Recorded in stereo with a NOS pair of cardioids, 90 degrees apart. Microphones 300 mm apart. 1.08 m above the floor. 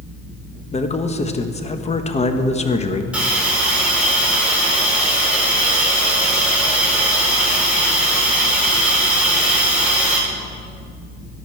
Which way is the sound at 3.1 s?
5° right.